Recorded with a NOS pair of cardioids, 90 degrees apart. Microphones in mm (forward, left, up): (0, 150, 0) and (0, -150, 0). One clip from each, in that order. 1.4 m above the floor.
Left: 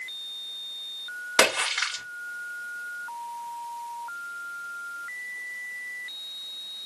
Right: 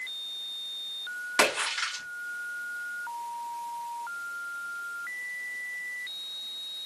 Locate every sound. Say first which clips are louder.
1.4 s a splash: left 4 dB; 40° left, 2 m